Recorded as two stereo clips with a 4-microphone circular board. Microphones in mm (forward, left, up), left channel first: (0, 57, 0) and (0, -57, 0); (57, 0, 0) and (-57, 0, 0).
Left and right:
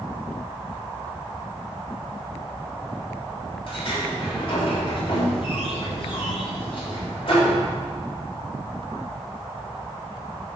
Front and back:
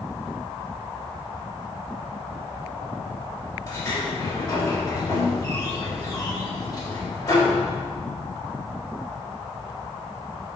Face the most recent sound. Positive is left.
turn(degrees=55)